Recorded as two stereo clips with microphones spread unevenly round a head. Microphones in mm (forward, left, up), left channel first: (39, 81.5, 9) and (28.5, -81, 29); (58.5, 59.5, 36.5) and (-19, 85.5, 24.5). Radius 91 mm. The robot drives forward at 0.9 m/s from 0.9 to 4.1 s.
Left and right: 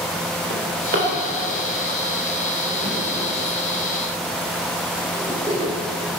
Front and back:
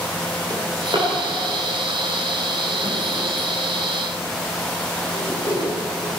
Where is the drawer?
135° right, 3 m; by 5.7 s 155° right, 5.5 m.